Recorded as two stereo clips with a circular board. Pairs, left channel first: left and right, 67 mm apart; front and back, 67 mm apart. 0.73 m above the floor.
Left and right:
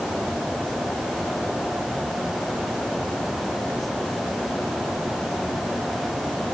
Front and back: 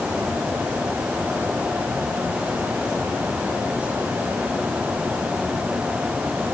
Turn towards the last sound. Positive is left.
No sound to turn to.